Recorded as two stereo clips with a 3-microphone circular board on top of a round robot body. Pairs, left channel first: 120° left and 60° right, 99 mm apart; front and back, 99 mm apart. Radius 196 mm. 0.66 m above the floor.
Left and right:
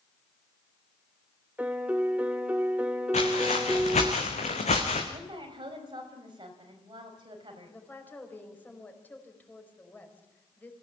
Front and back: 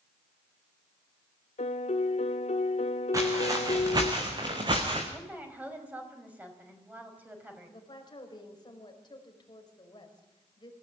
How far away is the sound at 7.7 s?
About 5 m.